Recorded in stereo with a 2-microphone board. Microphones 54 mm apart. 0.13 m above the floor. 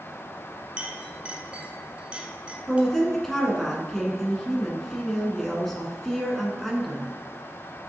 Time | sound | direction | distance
0.8 | a clink | 25° right (ahead or behind) | 0.8 m
2.7 | a woman speaking | 5° left (ahead or behind) | 1.3 m